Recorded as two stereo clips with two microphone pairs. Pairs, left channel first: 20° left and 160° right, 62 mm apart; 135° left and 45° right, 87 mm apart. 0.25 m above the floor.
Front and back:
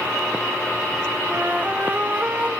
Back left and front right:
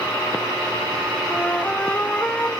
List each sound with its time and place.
1.3 s a flute: 165° right, 0.9 m